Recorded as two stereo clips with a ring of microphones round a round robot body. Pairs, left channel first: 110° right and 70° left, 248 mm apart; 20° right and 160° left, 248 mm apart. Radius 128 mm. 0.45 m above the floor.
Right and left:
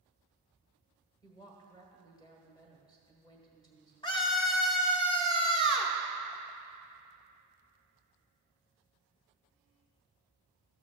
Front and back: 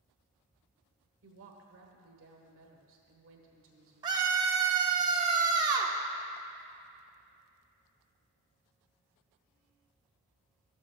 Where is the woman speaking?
175° left, 1.5 m.